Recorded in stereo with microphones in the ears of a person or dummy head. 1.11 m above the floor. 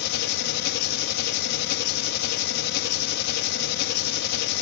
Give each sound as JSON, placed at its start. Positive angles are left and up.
{"t": 0.0, "sound": "an engine running", "side_deg": 55, "distance_m": 1.2}